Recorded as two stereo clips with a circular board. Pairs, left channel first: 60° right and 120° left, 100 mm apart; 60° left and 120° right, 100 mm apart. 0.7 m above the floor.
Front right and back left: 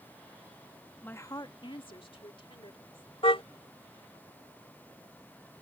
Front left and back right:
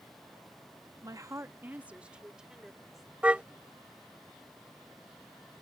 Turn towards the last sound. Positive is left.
turn(degrees=-45)